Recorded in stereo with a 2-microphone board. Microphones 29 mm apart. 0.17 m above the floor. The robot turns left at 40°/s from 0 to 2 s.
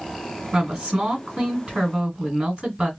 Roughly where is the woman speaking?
Ahead right.